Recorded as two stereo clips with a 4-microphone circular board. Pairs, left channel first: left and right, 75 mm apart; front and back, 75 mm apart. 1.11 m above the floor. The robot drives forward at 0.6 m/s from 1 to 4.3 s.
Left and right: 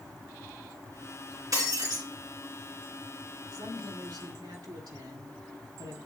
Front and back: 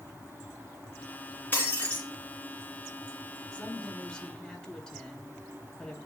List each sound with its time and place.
1.5 s breaking glass: 65° right, 3 m; by 2.0 s 70° right, 3 m
3.5 s a woman speaking: 80° right, 3.5 m; by 6.0 s 85° right, 3 m